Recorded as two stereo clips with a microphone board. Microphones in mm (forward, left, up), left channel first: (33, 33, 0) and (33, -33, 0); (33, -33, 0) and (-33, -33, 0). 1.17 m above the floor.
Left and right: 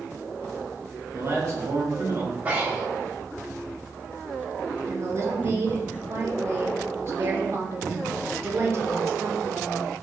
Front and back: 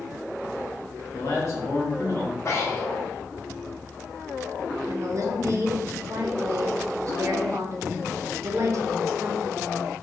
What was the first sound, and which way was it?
A man speaking, 45° right.